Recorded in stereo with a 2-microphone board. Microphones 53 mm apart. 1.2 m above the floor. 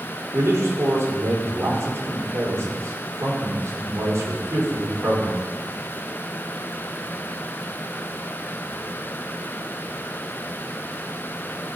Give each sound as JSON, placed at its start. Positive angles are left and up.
{"t": 0.3, "sound": "a man speaking", "side_deg": -55, "distance_m": 4.5}